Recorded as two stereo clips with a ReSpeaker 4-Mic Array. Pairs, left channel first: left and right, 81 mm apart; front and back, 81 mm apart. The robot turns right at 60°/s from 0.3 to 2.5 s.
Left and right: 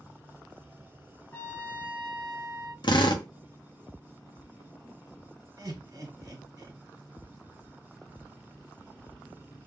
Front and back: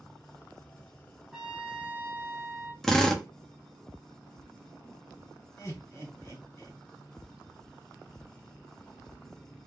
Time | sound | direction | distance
1.3 | a trumpet | 100° left | 0.6 m
2.8 | a drill | 85° left | 0.6 m
5.6 | laughter | 50° right | 1.3 m